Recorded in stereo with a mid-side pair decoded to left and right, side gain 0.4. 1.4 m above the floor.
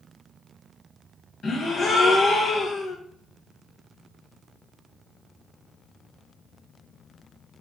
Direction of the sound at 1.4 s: 55° left.